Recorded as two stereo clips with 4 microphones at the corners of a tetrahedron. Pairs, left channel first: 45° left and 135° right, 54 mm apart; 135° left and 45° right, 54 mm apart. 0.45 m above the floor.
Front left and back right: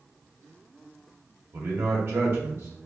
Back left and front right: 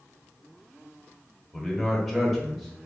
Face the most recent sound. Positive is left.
turn(degrees=-140)